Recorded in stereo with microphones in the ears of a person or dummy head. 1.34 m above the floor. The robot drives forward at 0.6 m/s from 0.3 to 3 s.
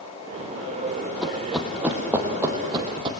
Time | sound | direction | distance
1.2 | running footsteps | 5° left (ahead or behind) | 2.5 m